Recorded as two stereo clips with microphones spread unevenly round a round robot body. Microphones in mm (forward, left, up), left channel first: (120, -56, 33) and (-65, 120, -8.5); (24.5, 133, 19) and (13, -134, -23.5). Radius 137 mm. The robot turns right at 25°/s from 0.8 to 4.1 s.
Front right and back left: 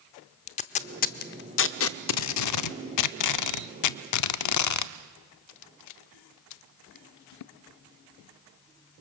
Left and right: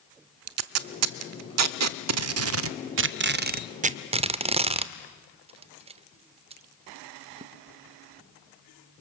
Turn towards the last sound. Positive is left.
turn(degrees=-30)